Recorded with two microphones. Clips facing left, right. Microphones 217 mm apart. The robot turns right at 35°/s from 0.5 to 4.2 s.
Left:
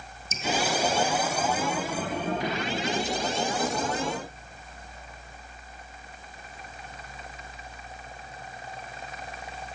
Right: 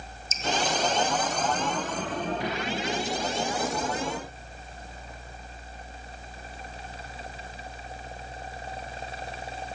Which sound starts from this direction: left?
Dripping, at 0.3 s.